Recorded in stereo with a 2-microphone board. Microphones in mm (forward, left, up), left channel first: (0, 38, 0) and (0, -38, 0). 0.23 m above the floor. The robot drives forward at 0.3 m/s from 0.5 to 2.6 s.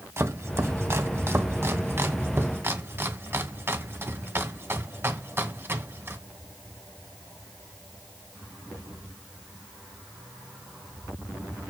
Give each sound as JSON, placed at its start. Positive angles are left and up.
{"t": 0.2, "sound": "chopping", "side_deg": -35, "distance_m": 1.9}